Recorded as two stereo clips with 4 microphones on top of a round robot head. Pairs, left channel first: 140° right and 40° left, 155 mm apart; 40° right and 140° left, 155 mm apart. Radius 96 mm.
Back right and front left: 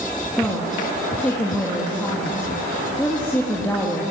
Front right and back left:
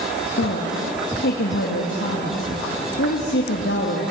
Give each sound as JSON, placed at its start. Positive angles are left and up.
{"t": 0.4, "sound": "a woman speaking", "azimuth_deg": -60, "distance_m": 2.5}